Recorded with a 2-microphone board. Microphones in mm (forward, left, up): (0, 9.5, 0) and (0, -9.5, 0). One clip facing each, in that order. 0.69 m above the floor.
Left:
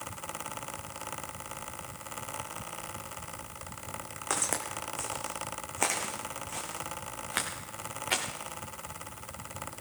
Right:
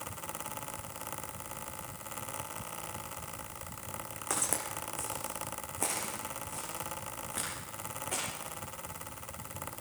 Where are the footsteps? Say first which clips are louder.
Left 3 dB; 20° left (ahead or behind), 2 m; by 8.2 s 80° left, 3.5 m.